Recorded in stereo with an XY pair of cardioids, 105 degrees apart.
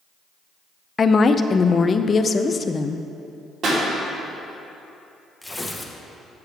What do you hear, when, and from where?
1.0 s a woman speaking: 35° left, 0.5 m
3.6 s a pop: 65° right, 2.5 m
5.4 s tearing paper: 10° left, 0.9 m